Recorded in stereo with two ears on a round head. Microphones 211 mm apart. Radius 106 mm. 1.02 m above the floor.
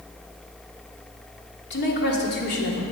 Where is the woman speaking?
45° left (ahead or behind), 2.5 m.